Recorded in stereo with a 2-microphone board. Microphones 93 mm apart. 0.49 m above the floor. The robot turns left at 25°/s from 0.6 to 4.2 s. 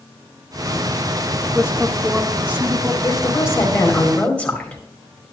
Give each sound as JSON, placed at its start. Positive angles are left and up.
{"t": 1.4, "sound": "a woman speaking", "side_deg": -10, "distance_m": 1.1}
{"t": 3.0, "sound": "a woman speaking", "side_deg": 40, "distance_m": 2.5}